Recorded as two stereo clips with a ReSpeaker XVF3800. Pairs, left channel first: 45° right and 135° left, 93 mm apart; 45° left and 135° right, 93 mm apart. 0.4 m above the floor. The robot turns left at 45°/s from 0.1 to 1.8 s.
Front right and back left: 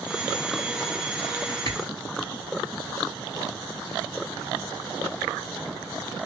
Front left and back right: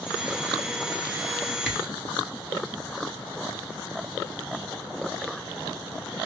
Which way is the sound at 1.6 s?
45° right.